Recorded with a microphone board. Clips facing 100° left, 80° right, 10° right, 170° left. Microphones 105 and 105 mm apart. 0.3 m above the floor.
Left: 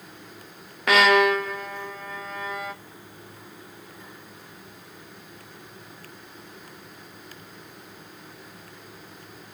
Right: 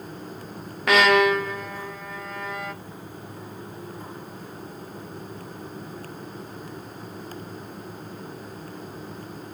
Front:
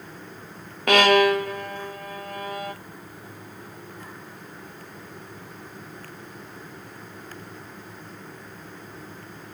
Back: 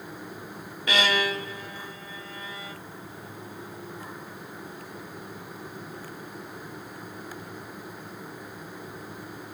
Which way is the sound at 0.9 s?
10° left.